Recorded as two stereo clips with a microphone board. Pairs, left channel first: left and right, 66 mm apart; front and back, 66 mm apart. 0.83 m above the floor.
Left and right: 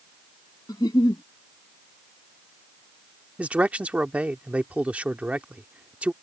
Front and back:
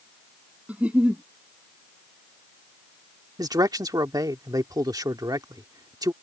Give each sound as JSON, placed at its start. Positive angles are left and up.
{"t": 0.7, "sound": "a giggle", "azimuth_deg": 110}
{"t": 3.4, "sound": "a man speaking", "azimuth_deg": -160}